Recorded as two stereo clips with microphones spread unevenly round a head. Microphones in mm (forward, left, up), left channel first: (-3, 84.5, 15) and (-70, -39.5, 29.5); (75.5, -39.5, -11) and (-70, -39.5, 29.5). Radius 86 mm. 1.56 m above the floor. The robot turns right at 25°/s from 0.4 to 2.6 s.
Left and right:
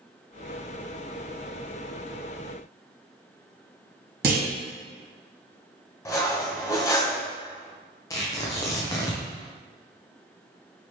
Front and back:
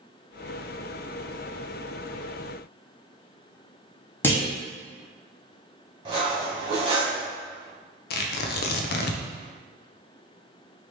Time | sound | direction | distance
4.2 | a clunk | 80° right | 1.3 m
6.0 | cutlery clinking | 130° left | 1.3 m
8.1 | tearing paper | 10° right | 0.5 m